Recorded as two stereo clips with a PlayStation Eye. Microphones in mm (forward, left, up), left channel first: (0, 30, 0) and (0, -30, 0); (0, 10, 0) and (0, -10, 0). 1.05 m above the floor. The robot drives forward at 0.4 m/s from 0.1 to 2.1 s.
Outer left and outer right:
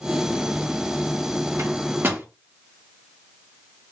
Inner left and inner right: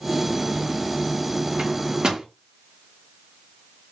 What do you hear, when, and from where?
1.6 s a microwave: 50° right (ahead or behind), 0.6 m; by 2.2 s 40° right (ahead or behind), 0.8 m